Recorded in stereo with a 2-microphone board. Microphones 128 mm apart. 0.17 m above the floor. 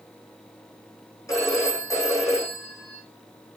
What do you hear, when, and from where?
1.3 s a phone ringing: 25° left (ahead or behind), 5 m